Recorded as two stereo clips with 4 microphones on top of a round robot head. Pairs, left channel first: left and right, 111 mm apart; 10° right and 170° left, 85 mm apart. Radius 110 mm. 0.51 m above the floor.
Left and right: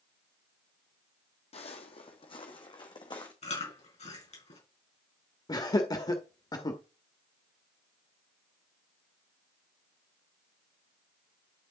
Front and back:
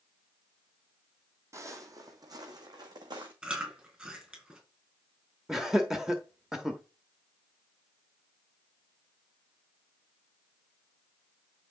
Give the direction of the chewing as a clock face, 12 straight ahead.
9 o'clock.